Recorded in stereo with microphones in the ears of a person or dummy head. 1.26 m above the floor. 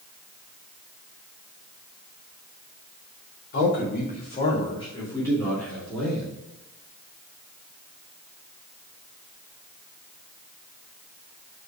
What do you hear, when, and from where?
3.5 s a man speaking: 65° left (ahead or behind), 2.5 m; by 6.3 s 5° right (ahead or behind), 3 m